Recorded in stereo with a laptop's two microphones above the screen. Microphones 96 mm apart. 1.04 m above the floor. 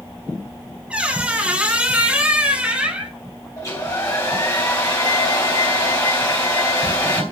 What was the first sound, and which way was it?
A squeak, 10° right (ahead or behind).